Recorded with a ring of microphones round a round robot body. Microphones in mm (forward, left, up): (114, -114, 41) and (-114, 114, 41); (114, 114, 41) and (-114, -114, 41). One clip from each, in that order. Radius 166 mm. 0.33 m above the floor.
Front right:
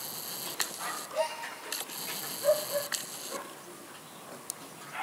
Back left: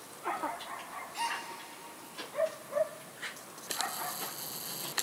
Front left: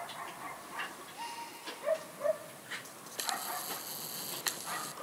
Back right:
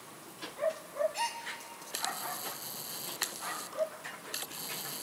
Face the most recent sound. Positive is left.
turn(degrees=-150)